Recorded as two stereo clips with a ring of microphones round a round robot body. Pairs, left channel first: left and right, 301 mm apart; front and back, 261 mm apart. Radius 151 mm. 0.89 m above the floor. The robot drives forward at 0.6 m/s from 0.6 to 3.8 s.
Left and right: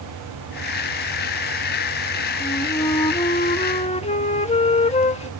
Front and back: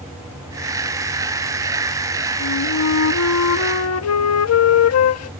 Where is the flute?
15° left; by 5.3 s 20° left.